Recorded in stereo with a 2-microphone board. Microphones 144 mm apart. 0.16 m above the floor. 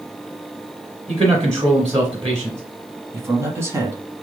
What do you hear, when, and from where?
1.1 s a man speaking: 30° right (ahead or behind), 1.9 m
3.1 s a man speaking: 20° right (ahead or behind), 1.1 m